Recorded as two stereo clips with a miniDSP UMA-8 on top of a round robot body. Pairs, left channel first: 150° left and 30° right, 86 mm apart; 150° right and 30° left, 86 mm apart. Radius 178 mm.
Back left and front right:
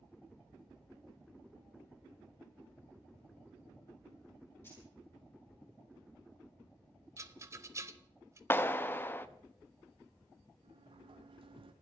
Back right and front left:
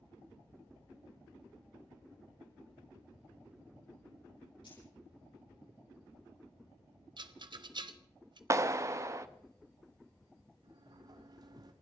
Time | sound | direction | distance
4.6 | keys jangling | 150° right | 9 m
7.2 | a rattle | 20° left | 1.2 m
8.5 | a clap | 85° left | 0.7 m
10.6 | a sliding door | 10° right | 0.8 m